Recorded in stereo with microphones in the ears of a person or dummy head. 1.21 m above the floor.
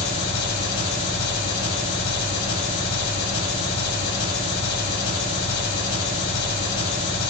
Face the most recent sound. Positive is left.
turn(degrees=60)  # may be behind; listen again after turning